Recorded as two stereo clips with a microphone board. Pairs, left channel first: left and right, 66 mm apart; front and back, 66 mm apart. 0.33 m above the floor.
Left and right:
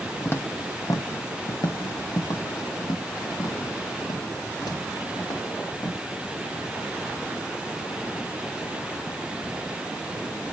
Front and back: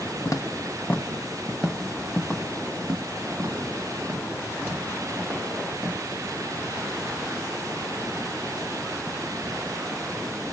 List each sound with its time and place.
0.2 s footsteps: 30° left, 1.0 m; by 6.0 s 120° left, 4 m